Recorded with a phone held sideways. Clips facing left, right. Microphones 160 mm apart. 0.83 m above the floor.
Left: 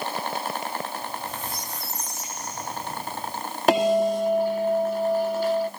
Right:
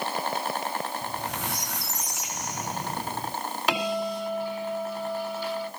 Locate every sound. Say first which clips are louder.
1.0 s a squeak: right 1 dB; 80° right, 2.5 m
3.7 s a bell: left 9 dB; 45° left (ahead or behind), 2 m